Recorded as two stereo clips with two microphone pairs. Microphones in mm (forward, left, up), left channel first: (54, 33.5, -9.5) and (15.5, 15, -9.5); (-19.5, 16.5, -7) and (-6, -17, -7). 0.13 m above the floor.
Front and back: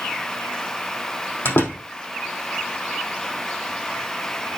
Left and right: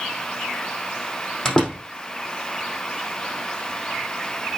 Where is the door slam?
35° left, 3.5 m.